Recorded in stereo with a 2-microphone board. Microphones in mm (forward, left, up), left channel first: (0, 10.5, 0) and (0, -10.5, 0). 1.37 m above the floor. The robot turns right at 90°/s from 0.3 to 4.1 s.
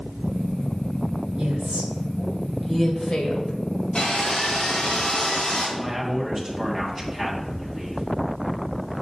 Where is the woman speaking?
55° right (ahead or behind), 1.6 m; by 3.5 s 65° left (ahead or behind), 1.6 m.